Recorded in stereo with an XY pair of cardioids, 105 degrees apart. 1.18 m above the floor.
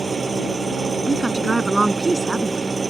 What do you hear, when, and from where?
0.0 s an engine running: 30° right
1.1 s a woman speaking: 15° right